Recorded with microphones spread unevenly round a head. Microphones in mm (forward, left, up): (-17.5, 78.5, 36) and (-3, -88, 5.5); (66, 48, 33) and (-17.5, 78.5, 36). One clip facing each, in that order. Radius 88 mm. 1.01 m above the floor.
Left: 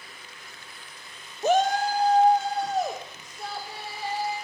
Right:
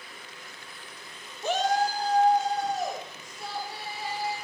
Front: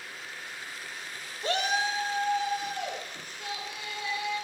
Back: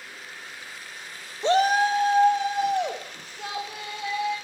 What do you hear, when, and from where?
1.4 s a shout: 120° left, 0.6 m; by 4.3 s 135° left, 3 m